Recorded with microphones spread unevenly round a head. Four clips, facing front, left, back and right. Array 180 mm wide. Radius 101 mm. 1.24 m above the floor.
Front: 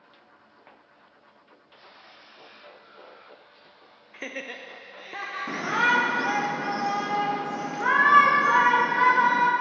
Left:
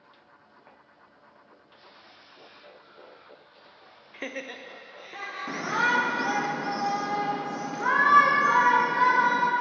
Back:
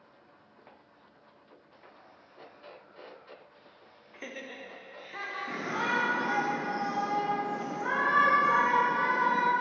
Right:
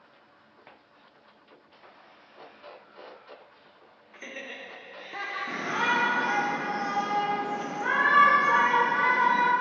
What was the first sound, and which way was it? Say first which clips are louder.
Laughter: left 5 dB, front 5 dB; 80° left.